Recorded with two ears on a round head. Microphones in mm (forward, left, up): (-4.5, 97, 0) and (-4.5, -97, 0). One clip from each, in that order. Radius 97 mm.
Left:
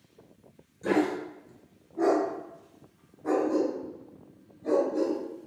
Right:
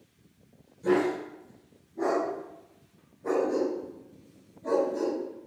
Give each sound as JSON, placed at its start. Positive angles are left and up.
{"t": 0.8, "sound": "a dog barking", "side_deg": 35, "distance_m": 1.5}